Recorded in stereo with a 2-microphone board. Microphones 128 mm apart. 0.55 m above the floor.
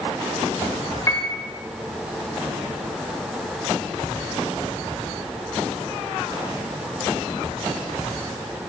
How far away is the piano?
About 1.6 m.